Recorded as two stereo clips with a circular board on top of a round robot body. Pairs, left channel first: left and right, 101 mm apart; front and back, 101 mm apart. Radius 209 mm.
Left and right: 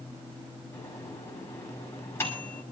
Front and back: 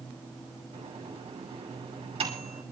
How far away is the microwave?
About 7 m.